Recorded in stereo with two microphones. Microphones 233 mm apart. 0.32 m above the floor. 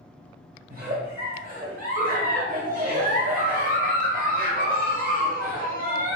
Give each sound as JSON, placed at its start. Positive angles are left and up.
{"t": 0.7, "sound": "a giggle", "side_deg": -35, "distance_m": 0.8}